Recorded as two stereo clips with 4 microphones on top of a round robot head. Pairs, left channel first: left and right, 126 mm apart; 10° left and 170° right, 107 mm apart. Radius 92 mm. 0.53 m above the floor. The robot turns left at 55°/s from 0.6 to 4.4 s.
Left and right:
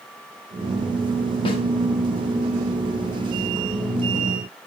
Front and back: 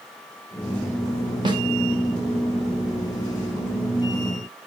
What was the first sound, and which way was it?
A snare drum, 150° left.